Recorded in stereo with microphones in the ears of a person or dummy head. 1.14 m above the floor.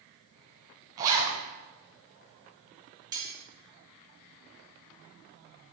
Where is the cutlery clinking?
20° right (ahead or behind), 2.0 m.